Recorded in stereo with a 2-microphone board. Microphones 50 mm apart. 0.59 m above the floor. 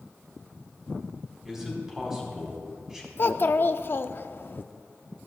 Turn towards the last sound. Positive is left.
turn(degrees=45)  # may be behind; listen again after turning